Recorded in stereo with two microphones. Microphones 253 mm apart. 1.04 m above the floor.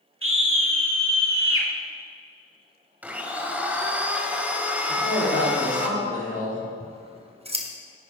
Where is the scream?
55° right (ahead or behind), 1.8 m.